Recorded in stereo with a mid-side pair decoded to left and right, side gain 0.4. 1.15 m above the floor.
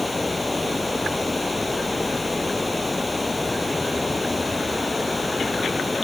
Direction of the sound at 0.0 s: 20° left.